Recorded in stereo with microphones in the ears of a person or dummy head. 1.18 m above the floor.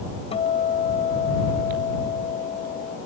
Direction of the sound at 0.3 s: 35° left (ahead or behind).